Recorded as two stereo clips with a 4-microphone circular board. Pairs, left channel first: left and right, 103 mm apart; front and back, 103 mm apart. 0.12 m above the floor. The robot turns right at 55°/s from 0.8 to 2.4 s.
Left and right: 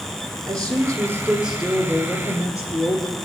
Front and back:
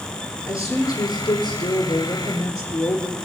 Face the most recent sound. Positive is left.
turn(degrees=40)